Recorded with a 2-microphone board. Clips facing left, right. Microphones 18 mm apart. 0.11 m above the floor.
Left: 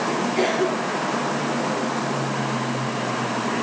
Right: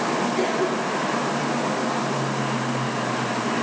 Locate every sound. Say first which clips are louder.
0.4 s a cough: left 1 dB; 30° left (ahead or behind), 3 m